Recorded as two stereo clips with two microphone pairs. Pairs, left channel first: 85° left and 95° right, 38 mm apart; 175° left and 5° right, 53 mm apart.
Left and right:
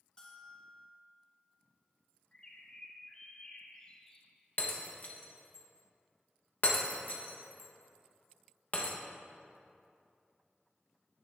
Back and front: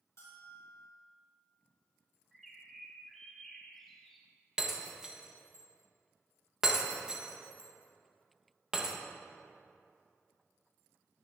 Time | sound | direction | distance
0.2 | a bell | 150° left | 2.5 m
2.3 | a bird | 90° left | 1.2 m
4.6 | breaking glass | 65° left | 1.0 m